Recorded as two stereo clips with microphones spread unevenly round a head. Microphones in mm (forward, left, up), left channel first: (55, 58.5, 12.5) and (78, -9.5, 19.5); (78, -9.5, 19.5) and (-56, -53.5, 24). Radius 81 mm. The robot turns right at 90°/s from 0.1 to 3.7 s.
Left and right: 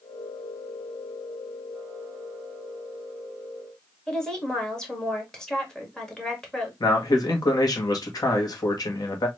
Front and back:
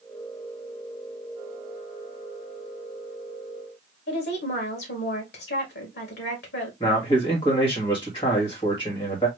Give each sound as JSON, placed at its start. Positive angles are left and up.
{"t": 4.1, "sound": "a woman speaking", "azimuth_deg": 25, "distance_m": 2.5}
{"t": 6.8, "sound": "a man speaking", "azimuth_deg": 80, "distance_m": 1.7}